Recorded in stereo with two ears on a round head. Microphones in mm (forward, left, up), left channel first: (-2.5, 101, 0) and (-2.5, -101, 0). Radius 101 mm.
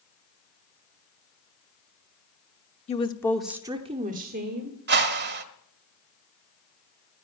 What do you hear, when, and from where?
2.9 s a woman speaking: 30° left (ahead or behind), 1.0 m; by 4.8 s 55° right (ahead or behind), 1.6 m
4.9 s a whoosh: 50° right (ahead or behind), 1.3 m